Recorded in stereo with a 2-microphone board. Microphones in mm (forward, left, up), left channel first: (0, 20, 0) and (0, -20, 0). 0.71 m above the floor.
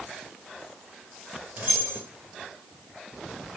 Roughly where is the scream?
No scream in this recording.